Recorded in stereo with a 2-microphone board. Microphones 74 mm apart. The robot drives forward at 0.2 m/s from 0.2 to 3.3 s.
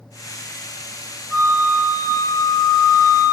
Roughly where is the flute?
Left.